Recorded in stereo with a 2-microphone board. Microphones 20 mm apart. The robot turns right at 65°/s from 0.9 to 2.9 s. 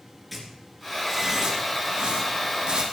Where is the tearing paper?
5° right (ahead or behind), 3 m; by 2.8 s 45° right (ahead or behind), 3 m.